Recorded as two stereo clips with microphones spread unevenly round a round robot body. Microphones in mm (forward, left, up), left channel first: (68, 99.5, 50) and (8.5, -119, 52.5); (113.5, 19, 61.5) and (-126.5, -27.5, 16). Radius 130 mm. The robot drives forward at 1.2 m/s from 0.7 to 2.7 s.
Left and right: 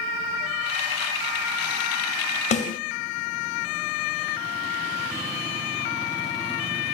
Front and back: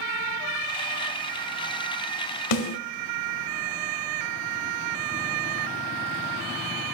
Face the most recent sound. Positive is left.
turn(degrees=20)